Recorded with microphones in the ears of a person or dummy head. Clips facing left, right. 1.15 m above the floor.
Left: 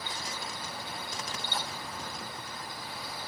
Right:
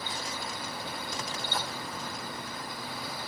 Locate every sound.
Only background noise.